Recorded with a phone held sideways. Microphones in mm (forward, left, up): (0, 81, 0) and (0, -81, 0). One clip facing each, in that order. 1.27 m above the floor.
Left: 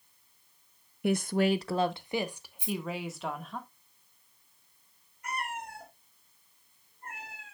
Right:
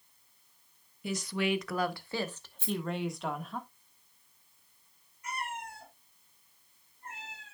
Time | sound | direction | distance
1.0 | a woman speaking | 60° left (ahead or behind) | 0.6 m
2.6 | a rattle | 15° left (ahead or behind) | 3.5 m
5.2 | a cat meowing | 60° left (ahead or behind) | 3.5 m